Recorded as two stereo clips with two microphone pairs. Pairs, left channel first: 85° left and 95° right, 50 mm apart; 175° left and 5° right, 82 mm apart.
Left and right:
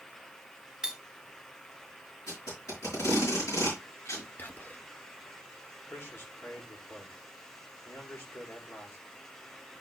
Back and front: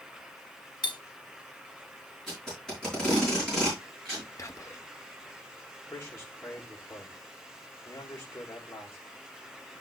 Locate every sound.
0.8 s cutlery clinking: 165° right, 0.9 m
2.3 s tape being pulled: 90° left, 6.5 m
4.4 s whispering: 130° left, 0.9 m
5.9 s a man speaking: 120° left, 2.5 m